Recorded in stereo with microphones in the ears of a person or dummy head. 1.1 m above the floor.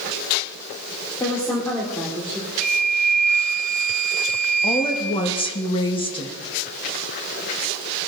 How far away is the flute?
About 1.2 m.